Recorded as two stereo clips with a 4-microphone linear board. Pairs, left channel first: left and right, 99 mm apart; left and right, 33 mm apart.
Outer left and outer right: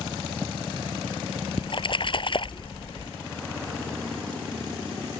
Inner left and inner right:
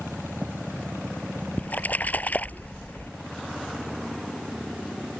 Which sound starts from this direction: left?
A splash, at 1.6 s.